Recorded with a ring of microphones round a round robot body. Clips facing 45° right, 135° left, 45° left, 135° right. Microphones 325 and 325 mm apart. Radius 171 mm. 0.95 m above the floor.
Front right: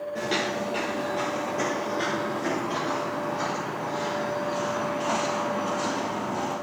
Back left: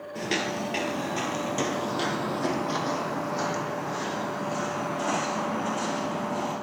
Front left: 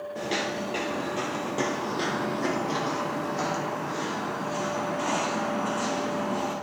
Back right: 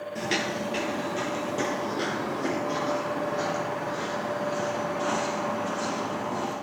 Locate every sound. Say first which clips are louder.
0.1 s footsteps: even, back right 1 dB; 160° right, 1.0 m; by 6.5 s 120° left, 4 m